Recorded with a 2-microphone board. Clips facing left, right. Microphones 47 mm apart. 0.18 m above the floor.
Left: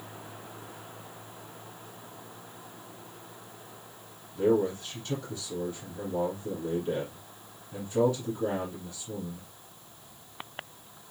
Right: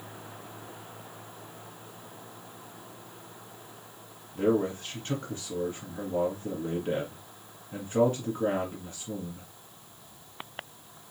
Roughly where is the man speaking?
Right.